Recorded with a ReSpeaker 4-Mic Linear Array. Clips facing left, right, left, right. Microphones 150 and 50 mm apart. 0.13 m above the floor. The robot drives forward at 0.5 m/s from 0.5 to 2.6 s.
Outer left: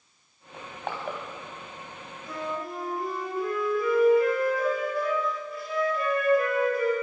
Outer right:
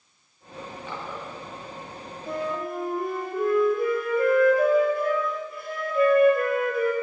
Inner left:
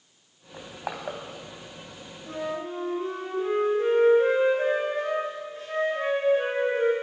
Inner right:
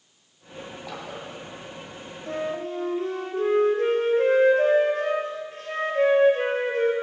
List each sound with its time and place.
0.5 s crushing: 60° left (ahead or behind), 3 m; by 1.2 s 65° left (ahead or behind), 3 m
2.3 s a flute: 55° right (ahead or behind), 2 m